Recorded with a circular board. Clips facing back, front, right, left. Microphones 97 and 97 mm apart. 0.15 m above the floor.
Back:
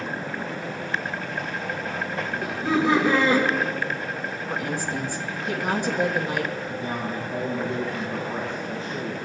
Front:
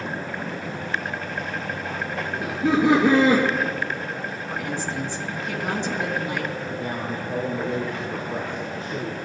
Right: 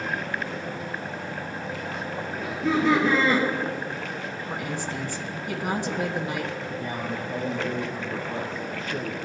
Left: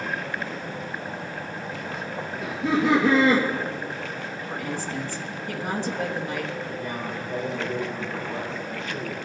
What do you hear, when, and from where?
2.4 s laughter: 5° left, 3 m
4.5 s a woman speaking: 135° right, 1.4 m
6.7 s a man speaking: 35° right, 3 m